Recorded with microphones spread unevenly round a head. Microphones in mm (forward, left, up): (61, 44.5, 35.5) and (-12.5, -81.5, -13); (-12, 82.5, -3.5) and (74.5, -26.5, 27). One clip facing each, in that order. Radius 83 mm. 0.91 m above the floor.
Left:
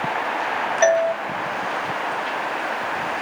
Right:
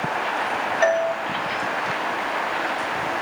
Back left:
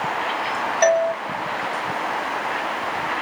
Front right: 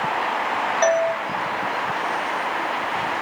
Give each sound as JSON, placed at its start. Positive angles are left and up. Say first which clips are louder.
{"t": 0.8, "sound": "a doorbell", "louder": "left 3 dB, back left 2 dB", "azimuth_deg": 130, "distance_m": 1.0}